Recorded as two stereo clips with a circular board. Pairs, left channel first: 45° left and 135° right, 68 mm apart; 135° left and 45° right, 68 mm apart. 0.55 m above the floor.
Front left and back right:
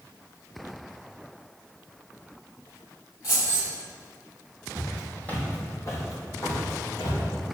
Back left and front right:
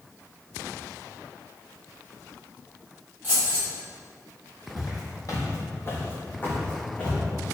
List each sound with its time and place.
3.2 s keys jangling: 15° left, 1.9 m
4.8 s footsteps: 130° left, 0.9 m; by 7.2 s 60° left, 1.6 m